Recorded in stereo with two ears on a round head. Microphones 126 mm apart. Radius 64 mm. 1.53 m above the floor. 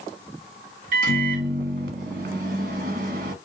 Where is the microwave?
60° right (ahead or behind), 1.1 m.